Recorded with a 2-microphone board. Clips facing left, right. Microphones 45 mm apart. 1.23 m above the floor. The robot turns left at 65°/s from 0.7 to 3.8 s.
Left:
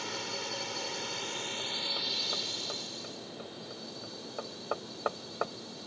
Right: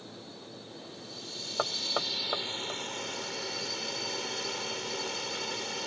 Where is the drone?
95° left; by 5.9 s 110° right.